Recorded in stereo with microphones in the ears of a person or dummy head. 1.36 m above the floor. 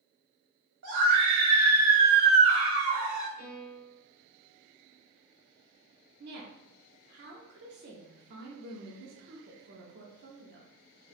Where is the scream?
70° right (ahead or behind), 1.3 m; by 3.3 s centre (ahead or behind), 1.2 m.